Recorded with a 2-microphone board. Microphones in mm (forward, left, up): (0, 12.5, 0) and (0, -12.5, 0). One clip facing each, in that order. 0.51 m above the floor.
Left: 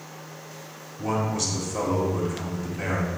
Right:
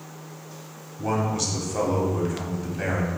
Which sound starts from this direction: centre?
A man speaking, at 1.0 s.